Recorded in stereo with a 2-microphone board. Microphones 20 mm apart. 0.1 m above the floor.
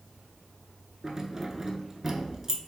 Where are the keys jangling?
20° right (ahead or behind), 0.8 m.